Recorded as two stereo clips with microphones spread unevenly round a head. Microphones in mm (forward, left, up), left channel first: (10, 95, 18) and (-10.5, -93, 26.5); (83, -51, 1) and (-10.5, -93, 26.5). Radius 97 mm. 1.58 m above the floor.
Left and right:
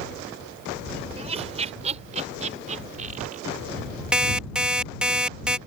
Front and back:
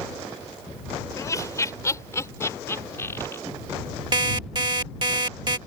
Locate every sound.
1.2 s laughter: 35° right; by 3.4 s 45° right
4.1 s an alarm clock: straight behind